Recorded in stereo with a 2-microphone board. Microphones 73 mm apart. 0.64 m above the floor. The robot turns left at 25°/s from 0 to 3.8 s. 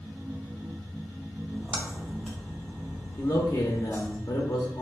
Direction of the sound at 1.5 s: 20° right (ahead or behind).